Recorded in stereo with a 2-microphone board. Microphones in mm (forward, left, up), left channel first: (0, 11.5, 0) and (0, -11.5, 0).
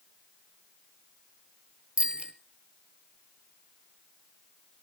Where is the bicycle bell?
60° right (ahead or behind), 2 m.